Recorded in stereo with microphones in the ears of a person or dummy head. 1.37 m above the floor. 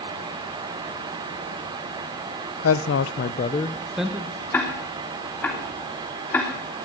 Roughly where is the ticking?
Centre.